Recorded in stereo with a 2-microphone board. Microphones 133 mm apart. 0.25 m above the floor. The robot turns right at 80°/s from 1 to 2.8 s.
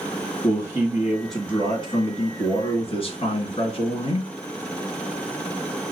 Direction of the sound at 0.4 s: 25° right.